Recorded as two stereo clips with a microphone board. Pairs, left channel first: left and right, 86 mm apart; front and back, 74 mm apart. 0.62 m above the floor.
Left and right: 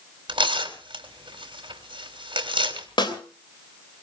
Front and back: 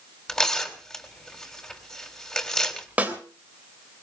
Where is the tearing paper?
80° right, 3 m.